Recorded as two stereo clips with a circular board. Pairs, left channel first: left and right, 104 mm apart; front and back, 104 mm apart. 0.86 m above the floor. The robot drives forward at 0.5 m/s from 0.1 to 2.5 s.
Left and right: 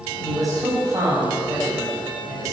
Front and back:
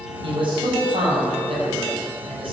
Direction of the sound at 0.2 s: 145° right.